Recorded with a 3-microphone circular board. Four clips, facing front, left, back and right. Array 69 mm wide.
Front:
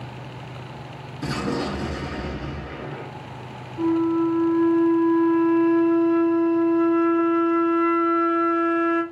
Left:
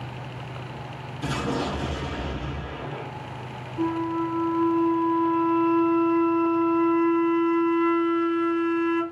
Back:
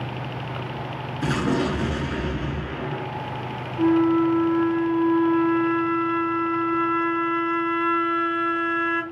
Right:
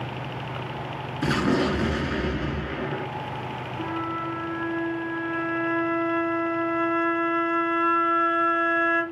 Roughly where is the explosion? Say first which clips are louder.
Right 5 dB, back 3 dB; right.